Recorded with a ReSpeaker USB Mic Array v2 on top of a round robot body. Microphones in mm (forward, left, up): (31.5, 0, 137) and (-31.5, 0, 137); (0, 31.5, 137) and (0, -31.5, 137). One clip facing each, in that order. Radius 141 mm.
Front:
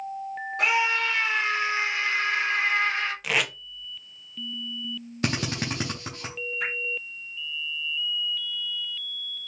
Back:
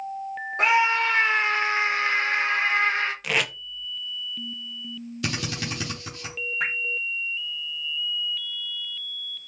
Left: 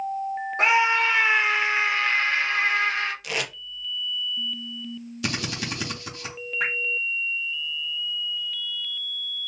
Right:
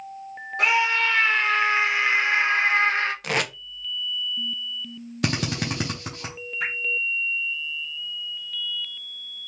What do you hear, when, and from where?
0.6 s a scream: 140° left, 1.3 m; by 3.1 s 130° right, 1.4 m
3.2 s tape being pulled: 85° right, 0.7 m
5.2 s a drill: 50° right, 0.6 m
6.6 s dripping: 135° left, 1.0 m